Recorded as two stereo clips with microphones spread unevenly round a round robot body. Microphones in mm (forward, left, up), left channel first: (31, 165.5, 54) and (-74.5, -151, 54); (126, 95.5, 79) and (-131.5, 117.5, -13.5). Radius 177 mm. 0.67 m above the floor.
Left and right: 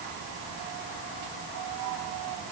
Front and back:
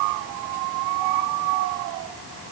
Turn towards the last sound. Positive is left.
No sound to turn to.